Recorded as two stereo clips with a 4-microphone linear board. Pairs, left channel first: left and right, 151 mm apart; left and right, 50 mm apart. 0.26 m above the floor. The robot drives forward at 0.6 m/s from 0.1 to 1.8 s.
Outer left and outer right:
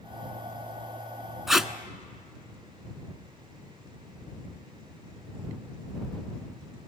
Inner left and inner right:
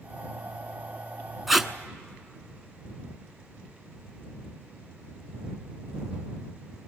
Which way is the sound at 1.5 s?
5° right (ahead or behind).